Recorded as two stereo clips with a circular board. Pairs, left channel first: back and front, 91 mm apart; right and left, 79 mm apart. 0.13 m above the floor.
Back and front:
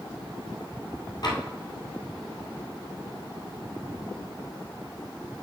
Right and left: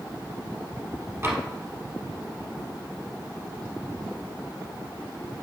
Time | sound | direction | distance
1.2 | tapping | 140° left | 2 m